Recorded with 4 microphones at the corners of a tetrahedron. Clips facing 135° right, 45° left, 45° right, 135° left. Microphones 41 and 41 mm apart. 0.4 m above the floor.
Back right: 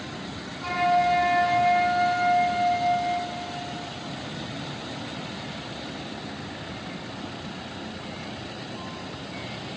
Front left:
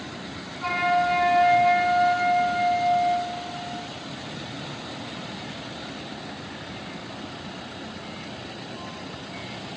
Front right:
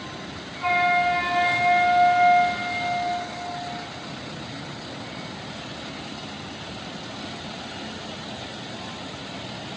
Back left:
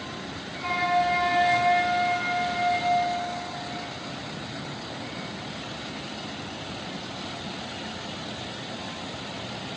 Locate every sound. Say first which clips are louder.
0.6 s a flute: even, front right 4 dB; 15° right, 1.1 m